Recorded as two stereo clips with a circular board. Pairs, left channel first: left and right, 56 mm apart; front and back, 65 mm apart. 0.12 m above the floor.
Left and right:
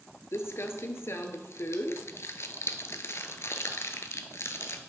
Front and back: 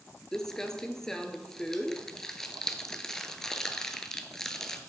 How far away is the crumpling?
About 0.6 m.